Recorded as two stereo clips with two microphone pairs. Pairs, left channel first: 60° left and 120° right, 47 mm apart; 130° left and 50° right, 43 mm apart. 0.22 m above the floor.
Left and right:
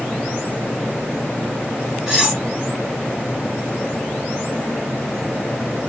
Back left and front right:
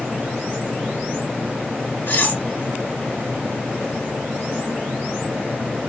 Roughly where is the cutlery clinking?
Behind left.